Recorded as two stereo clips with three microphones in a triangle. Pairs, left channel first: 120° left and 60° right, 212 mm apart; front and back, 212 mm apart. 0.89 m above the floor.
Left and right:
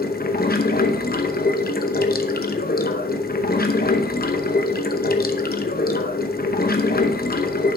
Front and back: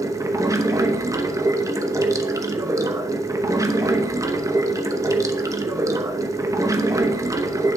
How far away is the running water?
About 0.8 m.